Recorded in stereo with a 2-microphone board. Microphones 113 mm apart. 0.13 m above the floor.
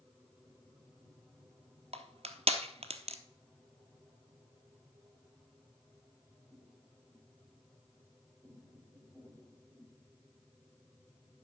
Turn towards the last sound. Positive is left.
turn(degrees=-65)  # may be behind; listen again after turning